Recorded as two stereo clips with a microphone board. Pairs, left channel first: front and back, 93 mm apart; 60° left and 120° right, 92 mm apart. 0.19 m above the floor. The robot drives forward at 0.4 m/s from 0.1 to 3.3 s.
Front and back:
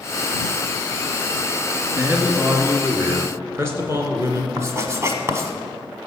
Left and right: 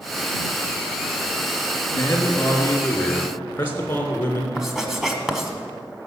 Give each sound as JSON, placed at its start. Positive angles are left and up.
{"t": 2.0, "sound": "a man speaking", "azimuth_deg": 110, "distance_m": 2.0}
{"t": 4.6, "sound": "writing", "azimuth_deg": 160, "distance_m": 1.4}